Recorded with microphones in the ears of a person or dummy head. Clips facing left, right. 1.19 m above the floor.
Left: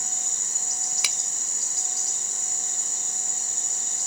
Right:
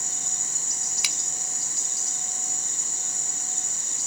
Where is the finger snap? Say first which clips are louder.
Left 1 dB; 75° left (ahead or behind).